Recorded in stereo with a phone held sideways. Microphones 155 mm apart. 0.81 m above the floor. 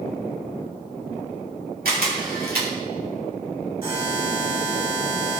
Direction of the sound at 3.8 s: 40° right (ahead or behind).